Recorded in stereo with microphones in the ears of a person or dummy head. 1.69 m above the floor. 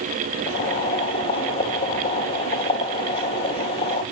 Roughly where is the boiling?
Left.